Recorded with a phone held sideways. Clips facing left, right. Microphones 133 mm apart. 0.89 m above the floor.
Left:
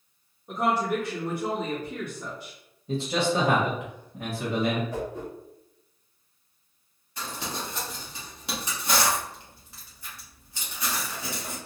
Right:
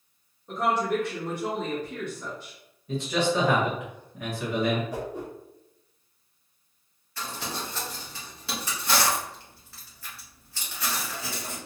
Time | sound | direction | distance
0.5 | a woman speaking | 10° left (ahead or behind) | 1.8 m
2.9 | a man speaking | 30° left (ahead or behind) | 1.2 m
4.9 | a whoosh | 15° right (ahead or behind) | 1.6 m
7.2 | crumpling | 15° left (ahead or behind) | 1.7 m